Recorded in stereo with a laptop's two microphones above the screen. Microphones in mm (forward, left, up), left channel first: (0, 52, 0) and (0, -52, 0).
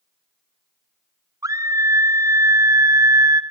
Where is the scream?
30° right (ahead or behind), 0.6 m.